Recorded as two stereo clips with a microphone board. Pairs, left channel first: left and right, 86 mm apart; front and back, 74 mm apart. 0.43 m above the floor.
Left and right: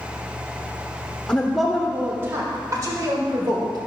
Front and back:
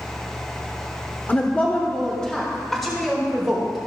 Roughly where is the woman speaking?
Ahead left.